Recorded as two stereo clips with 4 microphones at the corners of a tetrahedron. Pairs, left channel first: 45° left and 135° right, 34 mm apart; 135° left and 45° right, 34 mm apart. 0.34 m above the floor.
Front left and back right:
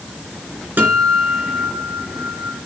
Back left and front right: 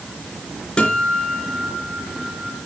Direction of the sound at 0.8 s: 165° right.